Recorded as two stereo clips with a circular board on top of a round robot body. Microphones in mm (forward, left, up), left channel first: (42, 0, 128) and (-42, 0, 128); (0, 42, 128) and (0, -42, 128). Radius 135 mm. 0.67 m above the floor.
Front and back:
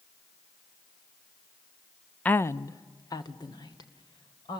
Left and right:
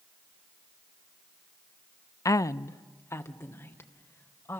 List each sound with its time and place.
2.2 s a woman speaking: 65° left, 0.6 m; by 4.6 s 30° left, 3 m